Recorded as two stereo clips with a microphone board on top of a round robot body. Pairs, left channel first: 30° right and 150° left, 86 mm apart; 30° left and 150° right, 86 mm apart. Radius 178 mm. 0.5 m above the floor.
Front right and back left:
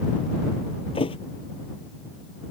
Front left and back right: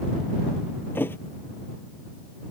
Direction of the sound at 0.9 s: 35° right.